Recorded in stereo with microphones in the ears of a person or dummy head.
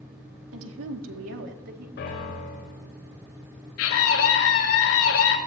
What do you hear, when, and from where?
0.5 s a woman speaking: 75° right (ahead or behind), 2 m; by 1.9 s 60° right (ahead or behind), 2.5 m
2.0 s a piano: 60° left (ahead or behind), 7 m
3.8 s a scream: 85° left, 6 m